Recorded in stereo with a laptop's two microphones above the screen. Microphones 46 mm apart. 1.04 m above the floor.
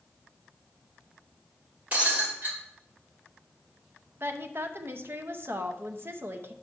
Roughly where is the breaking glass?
Right.